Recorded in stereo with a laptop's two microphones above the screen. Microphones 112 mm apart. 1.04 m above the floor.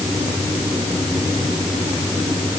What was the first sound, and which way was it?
Only background noise.